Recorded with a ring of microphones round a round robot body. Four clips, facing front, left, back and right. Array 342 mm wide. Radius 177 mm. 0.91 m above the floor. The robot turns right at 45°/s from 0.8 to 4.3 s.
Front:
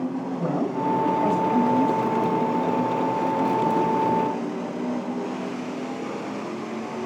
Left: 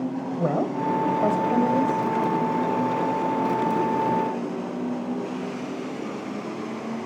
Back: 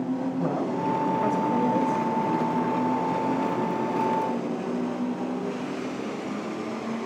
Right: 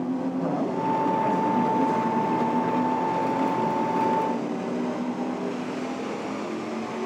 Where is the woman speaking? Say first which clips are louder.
Left 1 dB, front 1 dB; 90° left, 3.5 m; by 2.1 s 145° left, 3.5 m.